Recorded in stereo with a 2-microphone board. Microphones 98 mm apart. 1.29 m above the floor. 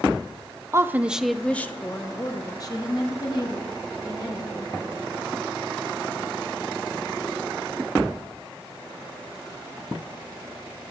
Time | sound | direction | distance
0.7 | a woman speaking | 30° right (ahead or behind) | 0.7 m